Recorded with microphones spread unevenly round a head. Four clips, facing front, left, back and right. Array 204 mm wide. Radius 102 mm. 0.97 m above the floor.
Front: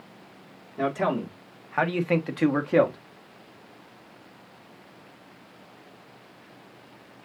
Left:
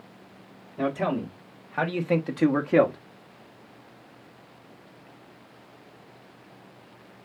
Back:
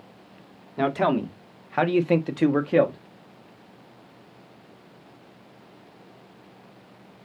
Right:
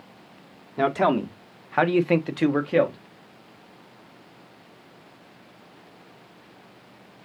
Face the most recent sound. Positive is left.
turn(degrees=115)